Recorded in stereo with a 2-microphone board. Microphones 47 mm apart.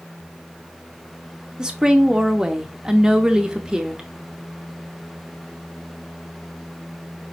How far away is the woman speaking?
About 0.7 m.